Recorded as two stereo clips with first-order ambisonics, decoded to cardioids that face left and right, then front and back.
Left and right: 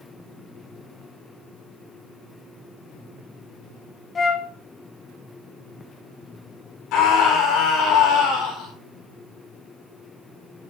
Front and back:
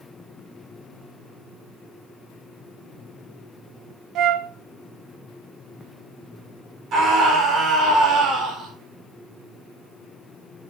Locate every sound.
4.2 s a flute: 155° left, 0.7 m
6.9 s a scream: 125° left, 5 m